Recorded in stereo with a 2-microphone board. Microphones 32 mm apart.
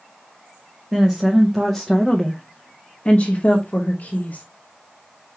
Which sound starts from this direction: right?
A woman speaking, at 0.9 s.